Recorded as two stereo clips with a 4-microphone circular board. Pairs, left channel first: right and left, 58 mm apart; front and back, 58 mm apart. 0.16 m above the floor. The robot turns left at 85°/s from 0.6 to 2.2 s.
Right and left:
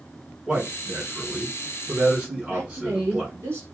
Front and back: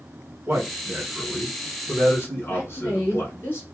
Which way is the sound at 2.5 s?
50° left.